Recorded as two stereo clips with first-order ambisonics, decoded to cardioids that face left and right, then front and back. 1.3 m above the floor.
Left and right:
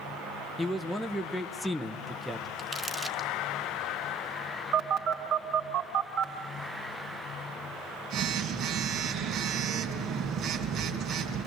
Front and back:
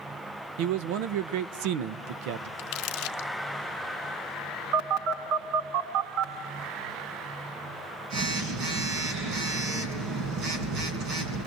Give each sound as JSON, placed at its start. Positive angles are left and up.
{"t": 0.6, "sound": "a man speaking", "azimuth_deg": 175, "distance_m": 1.1}
{"t": 2.6, "sound": "crumpling", "azimuth_deg": -15, "distance_m": 0.7}
{"t": 4.7, "sound": "a phone buzzing", "azimuth_deg": -140, "distance_m": 3.5}